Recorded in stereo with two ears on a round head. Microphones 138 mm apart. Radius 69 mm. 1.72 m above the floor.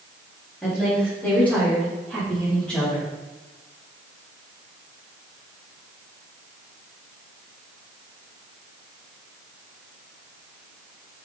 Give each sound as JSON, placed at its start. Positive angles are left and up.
{"t": 0.6, "sound": "a woman speaking", "side_deg": 10, "distance_m": 4.0}